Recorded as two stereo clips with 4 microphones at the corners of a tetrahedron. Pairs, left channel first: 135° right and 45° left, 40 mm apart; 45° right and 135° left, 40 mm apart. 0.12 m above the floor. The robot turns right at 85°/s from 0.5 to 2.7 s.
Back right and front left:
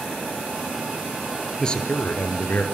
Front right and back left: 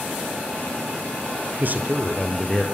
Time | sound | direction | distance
1.6 | a man speaking | 155° left | 1.9 m